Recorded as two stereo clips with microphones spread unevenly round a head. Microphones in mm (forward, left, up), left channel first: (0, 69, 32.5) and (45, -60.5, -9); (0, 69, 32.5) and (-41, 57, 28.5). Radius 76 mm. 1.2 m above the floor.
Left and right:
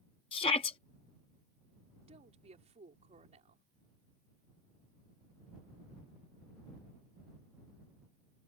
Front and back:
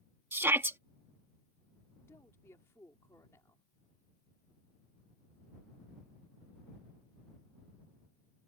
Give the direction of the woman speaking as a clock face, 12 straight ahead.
1 o'clock.